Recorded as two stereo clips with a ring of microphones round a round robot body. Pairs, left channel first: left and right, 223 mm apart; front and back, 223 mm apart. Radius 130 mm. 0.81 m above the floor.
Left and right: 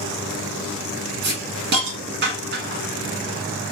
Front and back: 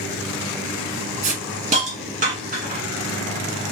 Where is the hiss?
125° right, 1.8 m.